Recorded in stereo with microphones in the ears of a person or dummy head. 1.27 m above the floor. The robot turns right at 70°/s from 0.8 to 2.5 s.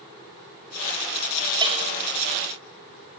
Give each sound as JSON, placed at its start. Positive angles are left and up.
{"t": 1.6, "sound": "a bell", "side_deg": -25, "distance_m": 4.0}